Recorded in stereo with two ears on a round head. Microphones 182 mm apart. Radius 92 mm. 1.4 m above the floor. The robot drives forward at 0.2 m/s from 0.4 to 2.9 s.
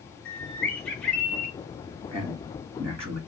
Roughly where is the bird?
Centre.